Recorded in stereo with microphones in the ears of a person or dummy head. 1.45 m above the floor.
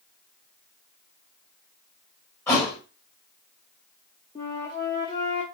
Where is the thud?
10° left (ahead or behind), 3 m.